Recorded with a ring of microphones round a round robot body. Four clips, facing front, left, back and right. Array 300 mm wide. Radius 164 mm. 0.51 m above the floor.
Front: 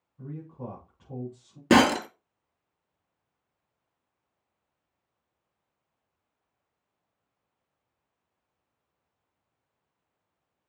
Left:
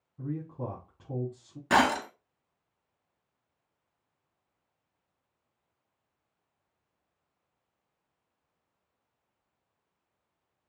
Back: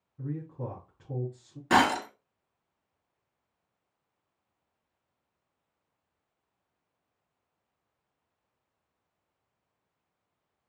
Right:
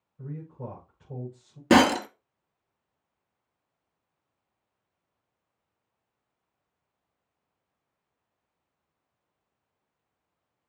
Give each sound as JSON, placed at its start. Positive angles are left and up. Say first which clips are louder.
{"t": 0.2, "sound": "a man speaking", "louder": "left 4 dB, back 3 dB", "azimuth_deg": 115, "distance_m": 5.0}
{"t": 1.7, "sound": "breaking glass", "louder": "right 5 dB, front 4 dB", "azimuth_deg": -45, "distance_m": 0.9}